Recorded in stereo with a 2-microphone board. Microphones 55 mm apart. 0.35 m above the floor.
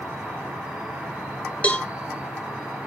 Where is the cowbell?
25° left (ahead or behind), 1.0 m.